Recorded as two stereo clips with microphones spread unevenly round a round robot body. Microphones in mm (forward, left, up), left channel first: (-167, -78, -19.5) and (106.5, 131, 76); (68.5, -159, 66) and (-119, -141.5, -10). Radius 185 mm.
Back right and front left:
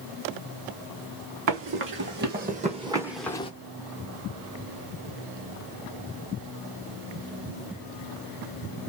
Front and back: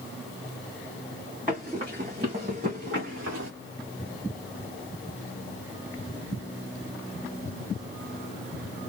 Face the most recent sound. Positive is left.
turn(degrees=135)